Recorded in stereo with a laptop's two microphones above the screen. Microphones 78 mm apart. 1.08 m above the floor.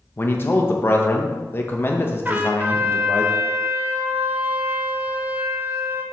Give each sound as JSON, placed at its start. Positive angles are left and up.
{"t": 0.2, "sound": "a man speaking", "side_deg": 30, "distance_m": 0.8}
{"t": 2.2, "sound": "a trumpet", "side_deg": -25, "distance_m": 0.9}